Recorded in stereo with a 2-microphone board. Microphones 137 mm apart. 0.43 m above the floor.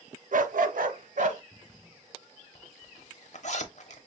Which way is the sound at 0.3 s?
70° right (ahead or behind).